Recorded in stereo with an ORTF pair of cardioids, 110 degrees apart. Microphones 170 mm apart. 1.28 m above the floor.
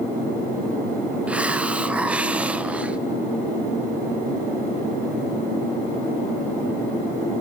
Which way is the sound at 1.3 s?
5° right.